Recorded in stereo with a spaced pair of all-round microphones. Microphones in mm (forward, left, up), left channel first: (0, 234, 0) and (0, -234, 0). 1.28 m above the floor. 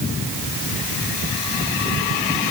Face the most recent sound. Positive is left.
No sound to turn to.